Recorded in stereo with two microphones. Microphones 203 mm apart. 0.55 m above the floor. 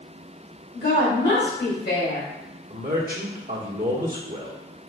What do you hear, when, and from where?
0.7 s a woman speaking: 55° left (ahead or behind), 1.8 m
2.7 s a man speaking: 45° right (ahead or behind), 1.1 m